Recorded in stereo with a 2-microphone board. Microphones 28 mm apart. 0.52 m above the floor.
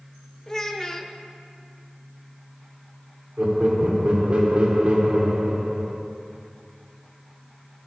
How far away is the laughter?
About 1.5 m.